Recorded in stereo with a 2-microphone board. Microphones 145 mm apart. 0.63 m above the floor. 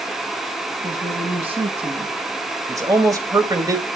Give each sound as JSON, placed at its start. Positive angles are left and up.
{"t": 0.8, "sound": "a woman speaking", "side_deg": -40, "distance_m": 8.0}
{"t": 2.7, "sound": "a man speaking", "side_deg": -25, "distance_m": 3.0}